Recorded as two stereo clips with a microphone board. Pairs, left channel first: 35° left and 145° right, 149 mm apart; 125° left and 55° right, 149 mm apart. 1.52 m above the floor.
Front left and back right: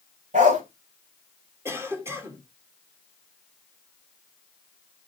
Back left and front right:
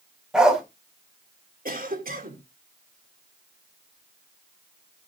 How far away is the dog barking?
About 1.9 m.